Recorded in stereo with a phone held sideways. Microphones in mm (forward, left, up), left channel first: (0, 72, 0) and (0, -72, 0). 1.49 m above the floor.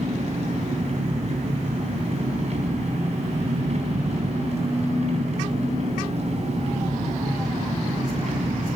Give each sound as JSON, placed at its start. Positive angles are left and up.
{"t": 0.0, "sound": "an engine running", "side_deg": -50, "distance_m": 3.5}